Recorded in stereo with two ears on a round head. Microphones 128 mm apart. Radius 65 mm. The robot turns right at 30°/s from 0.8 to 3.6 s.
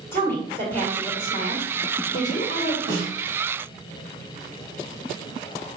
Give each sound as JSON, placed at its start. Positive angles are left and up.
{"t": 0.1, "sound": "a woman speaking", "azimuth_deg": 20, "distance_m": 1.9}
{"t": 2.9, "sound": "a snare drum", "side_deg": -65, "distance_m": 2.5}